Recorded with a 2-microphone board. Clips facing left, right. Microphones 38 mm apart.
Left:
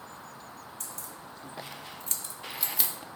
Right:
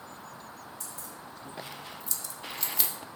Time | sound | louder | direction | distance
0.8 | keys jangling | even | 60° left (ahead or behind) | 1.4 m